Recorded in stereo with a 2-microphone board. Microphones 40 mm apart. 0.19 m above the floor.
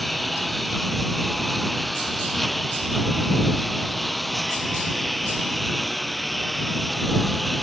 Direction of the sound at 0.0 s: 5° left (ahead or behind).